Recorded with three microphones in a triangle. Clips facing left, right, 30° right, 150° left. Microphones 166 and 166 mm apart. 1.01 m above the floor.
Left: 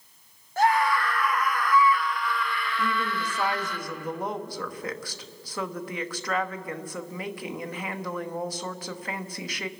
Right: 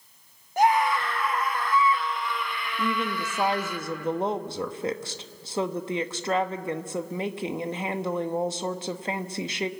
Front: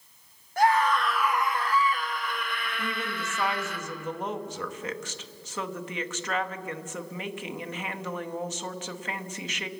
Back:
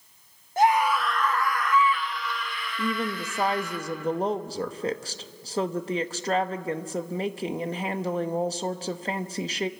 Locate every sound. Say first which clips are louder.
0.6 s a scream: right 1 dB, back 1 dB; 155° right, 1.0 m; by 3.8 s 15° right, 2 m
2.8 s a woman speaking: right 3 dB, back 8 dB; 155° right, 1.0 m